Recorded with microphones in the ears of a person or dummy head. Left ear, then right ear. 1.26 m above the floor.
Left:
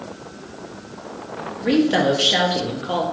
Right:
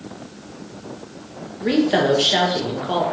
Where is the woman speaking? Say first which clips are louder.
Even; centre (ahead or behind), 0.6 m.